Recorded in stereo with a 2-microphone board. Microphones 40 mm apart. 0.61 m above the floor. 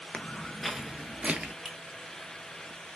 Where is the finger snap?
15° left (ahead or behind), 1.7 m.